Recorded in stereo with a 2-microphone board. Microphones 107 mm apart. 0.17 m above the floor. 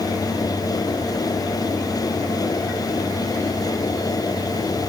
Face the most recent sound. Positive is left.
No sound to turn to.